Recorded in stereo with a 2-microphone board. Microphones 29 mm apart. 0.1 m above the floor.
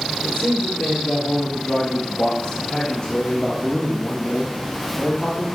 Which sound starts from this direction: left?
A man speaking, at 0.2 s.